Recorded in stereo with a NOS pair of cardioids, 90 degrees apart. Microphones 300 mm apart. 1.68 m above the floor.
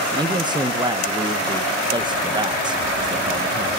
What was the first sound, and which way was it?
A man speaking, 15° right.